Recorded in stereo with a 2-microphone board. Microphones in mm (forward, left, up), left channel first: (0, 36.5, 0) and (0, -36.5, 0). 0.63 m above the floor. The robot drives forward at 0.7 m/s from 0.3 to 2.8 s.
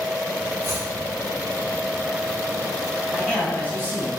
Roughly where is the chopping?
Right.